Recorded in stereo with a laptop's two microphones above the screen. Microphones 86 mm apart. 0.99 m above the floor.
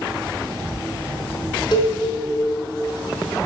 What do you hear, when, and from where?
1.7 s a cowbell: 55° left (ahead or behind), 4.5 m